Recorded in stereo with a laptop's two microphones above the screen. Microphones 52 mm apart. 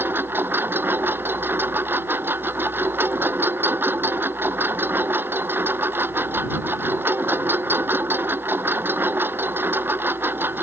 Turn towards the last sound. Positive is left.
turn(degrees=-45)  # may be behind; listen again after turning